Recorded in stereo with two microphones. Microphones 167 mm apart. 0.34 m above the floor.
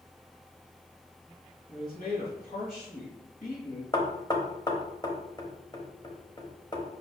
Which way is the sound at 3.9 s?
25° left (ahead or behind).